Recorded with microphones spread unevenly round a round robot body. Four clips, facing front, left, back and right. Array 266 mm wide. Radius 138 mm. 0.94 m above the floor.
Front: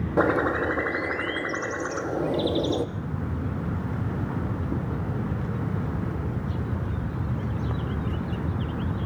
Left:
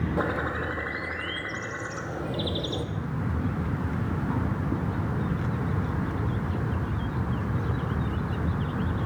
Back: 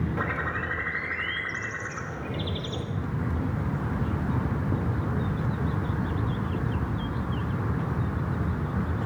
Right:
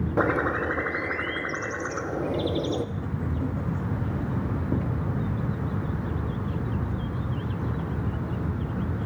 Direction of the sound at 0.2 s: 25° right.